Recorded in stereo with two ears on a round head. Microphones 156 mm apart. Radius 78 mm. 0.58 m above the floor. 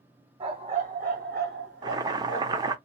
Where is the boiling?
20° right (ahead or behind), 0.5 m.